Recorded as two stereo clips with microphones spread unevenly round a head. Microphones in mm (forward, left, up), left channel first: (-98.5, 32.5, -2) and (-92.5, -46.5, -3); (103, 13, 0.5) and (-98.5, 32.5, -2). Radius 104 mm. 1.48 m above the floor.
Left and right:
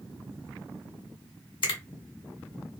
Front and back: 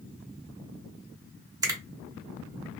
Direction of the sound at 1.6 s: 100° left.